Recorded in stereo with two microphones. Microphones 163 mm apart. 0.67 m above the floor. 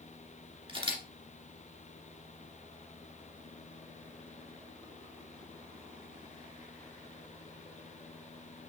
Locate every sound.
0.7 s a camera shutter: 35° right (ahead or behind), 1.7 m